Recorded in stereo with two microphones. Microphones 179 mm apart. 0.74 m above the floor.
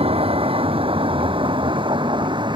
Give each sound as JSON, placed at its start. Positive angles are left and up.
{"t": 0.0, "sound": "a vehicle", "side_deg": -30}